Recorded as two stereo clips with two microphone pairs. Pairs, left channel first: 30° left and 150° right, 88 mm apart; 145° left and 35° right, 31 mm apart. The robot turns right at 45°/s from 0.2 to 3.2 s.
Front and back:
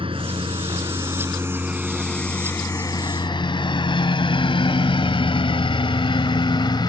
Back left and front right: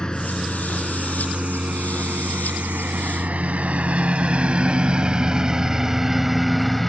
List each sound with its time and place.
0.0 s a lawn mower: 155° right; by 6.9 s 55° left